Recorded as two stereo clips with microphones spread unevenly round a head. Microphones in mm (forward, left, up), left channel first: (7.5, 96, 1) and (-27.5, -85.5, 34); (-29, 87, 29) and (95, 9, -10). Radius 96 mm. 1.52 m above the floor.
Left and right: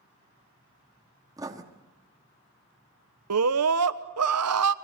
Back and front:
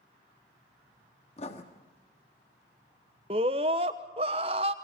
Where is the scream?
95° right, 1.1 m.